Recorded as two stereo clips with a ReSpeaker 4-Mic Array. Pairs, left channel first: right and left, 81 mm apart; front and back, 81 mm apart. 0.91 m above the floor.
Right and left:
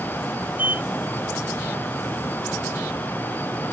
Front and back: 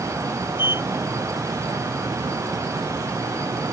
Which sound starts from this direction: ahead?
A sliding door, at 0.6 s.